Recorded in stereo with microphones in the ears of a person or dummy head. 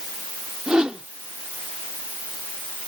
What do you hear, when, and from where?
0.7 s a whoosh: centre (ahead or behind)